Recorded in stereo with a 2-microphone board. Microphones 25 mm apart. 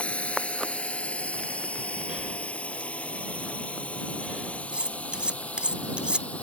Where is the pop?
No pop in this recording.